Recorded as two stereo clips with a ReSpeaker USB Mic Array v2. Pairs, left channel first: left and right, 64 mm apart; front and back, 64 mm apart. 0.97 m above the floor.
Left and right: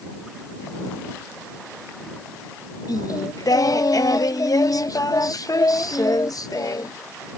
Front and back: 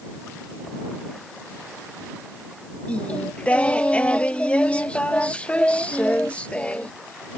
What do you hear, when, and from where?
2.9 s singing: 65° left